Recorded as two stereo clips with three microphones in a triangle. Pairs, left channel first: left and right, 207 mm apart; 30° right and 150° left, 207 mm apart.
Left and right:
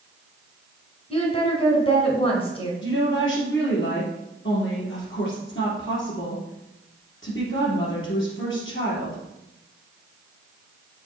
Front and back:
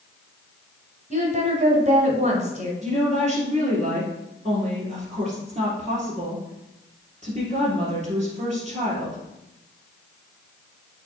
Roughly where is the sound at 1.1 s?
Behind left.